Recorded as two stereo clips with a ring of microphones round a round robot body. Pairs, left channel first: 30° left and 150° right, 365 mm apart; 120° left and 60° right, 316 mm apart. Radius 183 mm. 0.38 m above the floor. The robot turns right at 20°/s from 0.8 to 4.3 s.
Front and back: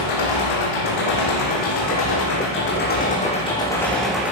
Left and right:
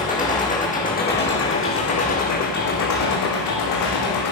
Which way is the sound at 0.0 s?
55° left.